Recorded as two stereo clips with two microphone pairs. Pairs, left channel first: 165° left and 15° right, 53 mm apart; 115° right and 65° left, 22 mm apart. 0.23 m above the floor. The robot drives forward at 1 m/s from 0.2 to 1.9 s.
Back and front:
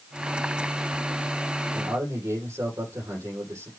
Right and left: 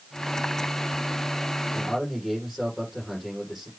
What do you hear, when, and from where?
1.7 s a man speaking: 20° right, 6.5 m